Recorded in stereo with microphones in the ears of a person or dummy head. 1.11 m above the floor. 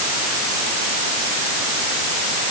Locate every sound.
Only background noise.